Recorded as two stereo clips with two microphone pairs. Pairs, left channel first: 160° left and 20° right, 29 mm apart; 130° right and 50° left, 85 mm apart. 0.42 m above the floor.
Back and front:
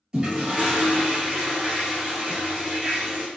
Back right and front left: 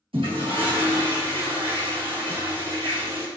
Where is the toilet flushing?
45° left, 1.7 m.